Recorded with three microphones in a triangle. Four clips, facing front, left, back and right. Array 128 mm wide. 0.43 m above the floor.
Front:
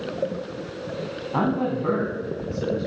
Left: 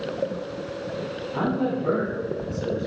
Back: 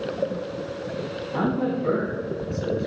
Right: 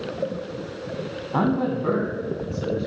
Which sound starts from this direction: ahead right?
A man speaking, at 1.3 s.